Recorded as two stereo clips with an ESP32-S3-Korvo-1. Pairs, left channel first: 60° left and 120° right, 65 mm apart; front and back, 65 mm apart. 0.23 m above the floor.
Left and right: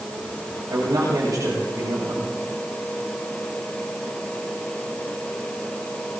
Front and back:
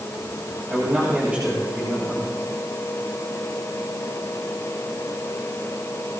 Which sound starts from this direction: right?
A man speaking, at 0.7 s.